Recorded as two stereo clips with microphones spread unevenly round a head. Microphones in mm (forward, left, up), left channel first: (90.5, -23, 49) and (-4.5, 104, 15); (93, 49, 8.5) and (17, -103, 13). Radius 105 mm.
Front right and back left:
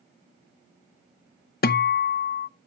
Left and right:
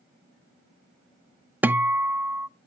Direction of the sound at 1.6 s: 35° right.